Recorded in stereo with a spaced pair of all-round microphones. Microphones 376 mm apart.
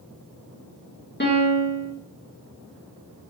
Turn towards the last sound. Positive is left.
turn(degrees=25)  # may be behind; listen again after turning